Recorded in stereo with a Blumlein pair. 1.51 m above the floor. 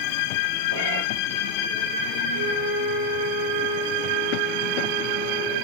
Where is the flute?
55° right, 0.9 m.